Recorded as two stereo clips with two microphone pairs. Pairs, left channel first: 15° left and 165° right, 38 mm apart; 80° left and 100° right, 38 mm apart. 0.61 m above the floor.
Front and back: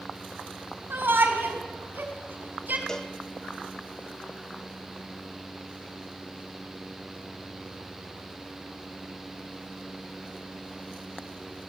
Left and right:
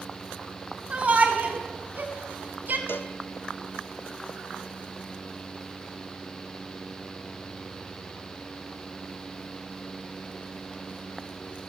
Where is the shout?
155° right, 5 m; by 2.8 s 130° right, 4.5 m.